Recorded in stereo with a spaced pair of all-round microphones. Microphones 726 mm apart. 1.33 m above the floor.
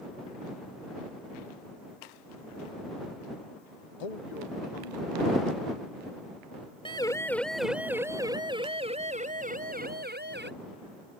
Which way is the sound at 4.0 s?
55° left (ahead or behind).